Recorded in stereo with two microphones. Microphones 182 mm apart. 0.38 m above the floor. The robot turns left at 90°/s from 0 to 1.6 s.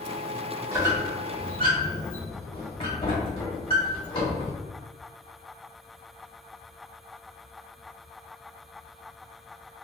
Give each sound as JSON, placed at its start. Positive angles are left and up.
{"t": 0.7, "sound": "a squeak", "side_deg": -20, "distance_m": 1.0}